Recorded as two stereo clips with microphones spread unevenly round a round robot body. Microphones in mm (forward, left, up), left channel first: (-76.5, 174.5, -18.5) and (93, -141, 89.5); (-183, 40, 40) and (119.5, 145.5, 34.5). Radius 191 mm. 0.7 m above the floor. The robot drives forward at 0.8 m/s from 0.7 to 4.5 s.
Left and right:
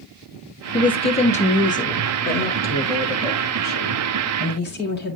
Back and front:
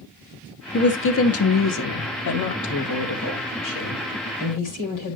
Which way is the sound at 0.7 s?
160° left.